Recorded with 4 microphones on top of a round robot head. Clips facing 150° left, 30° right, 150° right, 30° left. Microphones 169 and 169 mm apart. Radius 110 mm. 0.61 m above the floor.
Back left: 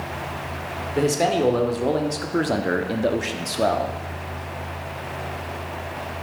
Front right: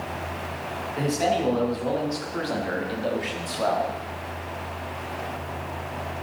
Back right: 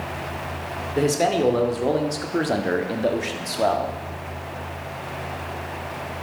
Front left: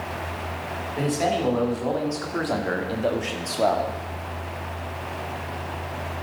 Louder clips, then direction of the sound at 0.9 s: Back left 4 dB, back right 4 dB; straight behind.